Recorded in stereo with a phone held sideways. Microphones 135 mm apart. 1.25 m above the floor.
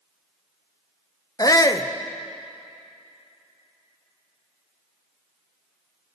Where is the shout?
30° left (ahead or behind), 0.6 m.